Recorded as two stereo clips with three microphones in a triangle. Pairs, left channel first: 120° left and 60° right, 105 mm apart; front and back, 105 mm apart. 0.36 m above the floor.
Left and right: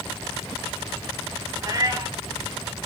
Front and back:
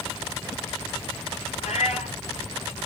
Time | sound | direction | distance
1.6 | a cat meowing | straight ahead | 5 m